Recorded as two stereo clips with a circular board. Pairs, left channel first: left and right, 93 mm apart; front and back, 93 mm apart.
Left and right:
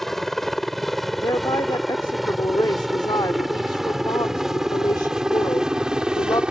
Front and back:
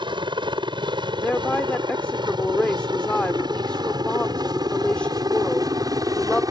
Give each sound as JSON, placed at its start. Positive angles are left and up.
{"t": 0.0, "sound": "a helicopter", "azimuth_deg": 175}
{"t": 1.2, "sound": "a woman speaking", "azimuth_deg": 75}